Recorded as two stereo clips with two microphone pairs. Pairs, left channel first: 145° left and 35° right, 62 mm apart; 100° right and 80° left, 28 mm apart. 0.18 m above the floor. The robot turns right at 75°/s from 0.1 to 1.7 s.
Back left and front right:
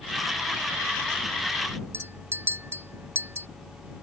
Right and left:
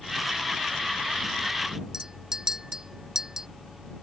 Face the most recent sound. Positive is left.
turn(degrees=10)